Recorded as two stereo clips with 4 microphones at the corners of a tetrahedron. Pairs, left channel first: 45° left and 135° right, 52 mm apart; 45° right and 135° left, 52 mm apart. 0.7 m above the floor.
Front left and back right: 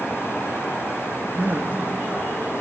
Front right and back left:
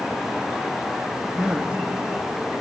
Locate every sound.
1.4 s a man speaking: 165° right, 0.8 m